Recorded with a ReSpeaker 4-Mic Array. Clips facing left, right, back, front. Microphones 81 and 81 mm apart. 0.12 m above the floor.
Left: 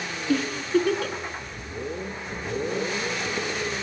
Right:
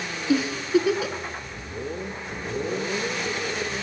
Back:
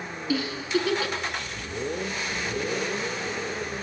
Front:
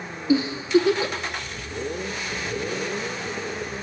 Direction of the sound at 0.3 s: 15° right.